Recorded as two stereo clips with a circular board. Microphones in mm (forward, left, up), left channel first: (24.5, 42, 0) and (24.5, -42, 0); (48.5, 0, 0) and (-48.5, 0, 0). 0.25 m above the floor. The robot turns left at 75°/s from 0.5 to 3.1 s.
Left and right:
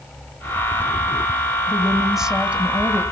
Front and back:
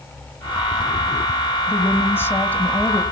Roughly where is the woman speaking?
Ahead left.